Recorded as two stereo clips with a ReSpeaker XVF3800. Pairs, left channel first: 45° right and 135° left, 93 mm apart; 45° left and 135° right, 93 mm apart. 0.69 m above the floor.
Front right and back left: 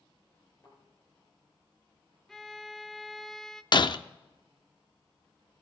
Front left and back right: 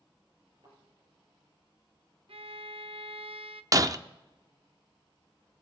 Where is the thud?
100° right, 7 m.